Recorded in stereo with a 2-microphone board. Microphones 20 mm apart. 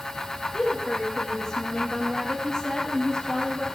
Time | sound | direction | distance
0.5 | a woman speaking | 30° left (ahead or behind) | 4.5 m